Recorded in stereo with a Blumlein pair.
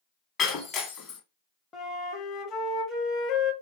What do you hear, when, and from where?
0.4 s breaking glass: 30° left, 1.0 m
1.7 s a flute: 20° left, 0.7 m